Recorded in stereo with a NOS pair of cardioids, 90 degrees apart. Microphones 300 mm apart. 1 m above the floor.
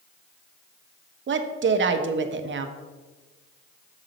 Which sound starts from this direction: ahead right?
A woman speaking, at 1.3 s.